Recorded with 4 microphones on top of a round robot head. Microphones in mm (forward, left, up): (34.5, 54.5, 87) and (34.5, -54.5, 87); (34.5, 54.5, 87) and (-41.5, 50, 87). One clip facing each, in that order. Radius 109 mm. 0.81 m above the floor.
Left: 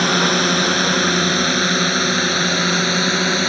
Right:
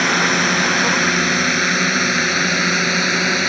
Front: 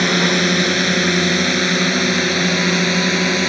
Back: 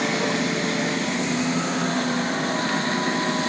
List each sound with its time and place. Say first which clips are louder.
0.0 s a drone: left 1 dB, front 6 dB; 15° left; by 3.5 s 10° left